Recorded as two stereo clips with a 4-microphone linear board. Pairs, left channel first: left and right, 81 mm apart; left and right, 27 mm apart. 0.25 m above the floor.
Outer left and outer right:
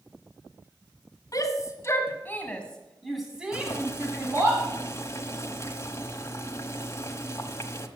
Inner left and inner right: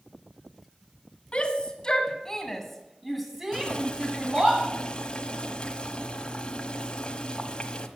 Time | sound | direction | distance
1.3 | a shout | 45° left (ahead or behind) | 2 m
3.5 | boiling | 35° left (ahead or behind) | 1.2 m